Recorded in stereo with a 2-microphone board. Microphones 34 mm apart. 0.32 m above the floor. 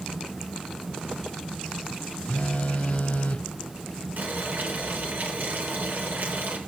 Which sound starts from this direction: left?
A phone buzzing, at 2.3 s.